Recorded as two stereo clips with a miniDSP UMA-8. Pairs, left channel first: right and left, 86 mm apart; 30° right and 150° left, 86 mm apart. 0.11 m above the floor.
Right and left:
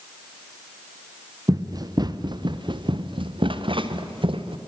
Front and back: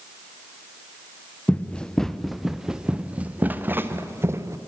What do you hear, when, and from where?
1.5 s running footsteps: 45° left, 1.5 m; by 4.6 s 95° left, 2 m